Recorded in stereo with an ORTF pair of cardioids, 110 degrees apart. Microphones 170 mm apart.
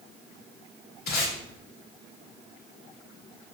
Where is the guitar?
I don't hear a guitar.